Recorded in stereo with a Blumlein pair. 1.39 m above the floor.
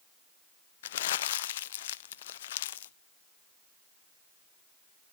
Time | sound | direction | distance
0.8 | crumpling | 60° left | 0.5 m